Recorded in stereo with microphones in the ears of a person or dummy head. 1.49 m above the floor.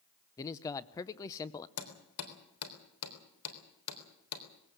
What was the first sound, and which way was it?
A man speaking, 15° left (ahead or behind).